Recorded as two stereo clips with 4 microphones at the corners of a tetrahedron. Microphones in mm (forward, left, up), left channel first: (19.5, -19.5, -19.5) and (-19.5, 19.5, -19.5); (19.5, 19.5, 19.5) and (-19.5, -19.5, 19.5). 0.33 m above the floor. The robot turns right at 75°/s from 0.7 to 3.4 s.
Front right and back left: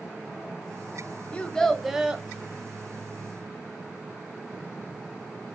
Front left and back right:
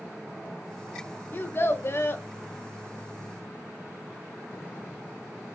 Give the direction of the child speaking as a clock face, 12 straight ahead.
12 o'clock.